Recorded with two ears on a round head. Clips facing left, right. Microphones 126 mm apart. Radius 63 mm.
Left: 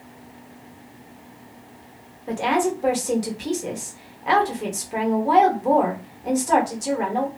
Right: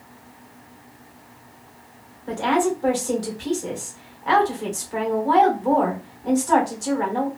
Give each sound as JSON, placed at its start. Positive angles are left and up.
{"t": 2.3, "sound": "a woman speaking", "side_deg": 15, "distance_m": 1.2}